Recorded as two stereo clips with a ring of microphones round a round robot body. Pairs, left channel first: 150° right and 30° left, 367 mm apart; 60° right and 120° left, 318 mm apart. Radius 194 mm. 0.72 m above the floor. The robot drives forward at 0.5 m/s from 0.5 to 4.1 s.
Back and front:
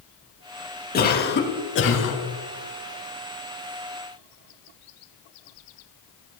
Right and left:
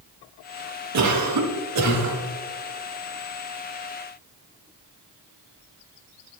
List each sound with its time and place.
0.9 s a cough: 145° left, 1.9 m; by 2.2 s 155° left, 2.5 m